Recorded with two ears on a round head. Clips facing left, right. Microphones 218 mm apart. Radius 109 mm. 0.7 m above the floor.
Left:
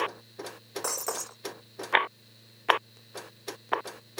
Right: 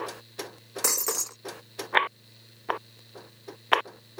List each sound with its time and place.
0.8 s breaking glass: 35° right (ahead or behind)